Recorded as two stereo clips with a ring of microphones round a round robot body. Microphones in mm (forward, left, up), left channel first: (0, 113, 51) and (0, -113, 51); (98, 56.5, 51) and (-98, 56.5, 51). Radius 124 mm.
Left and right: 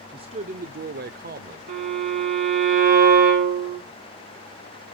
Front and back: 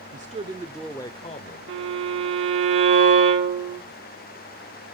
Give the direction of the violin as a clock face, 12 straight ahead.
5 o'clock.